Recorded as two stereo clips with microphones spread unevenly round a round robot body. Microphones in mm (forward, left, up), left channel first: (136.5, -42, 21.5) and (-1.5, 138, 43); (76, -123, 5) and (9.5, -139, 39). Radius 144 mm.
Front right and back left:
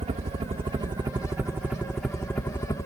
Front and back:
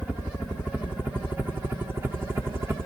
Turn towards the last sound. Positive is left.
turn(degrees=-105)